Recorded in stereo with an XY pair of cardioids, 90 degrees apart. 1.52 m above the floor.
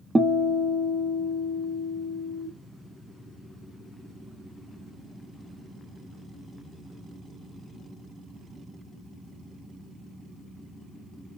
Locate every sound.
0.1 s a guitar: 25° right, 0.9 m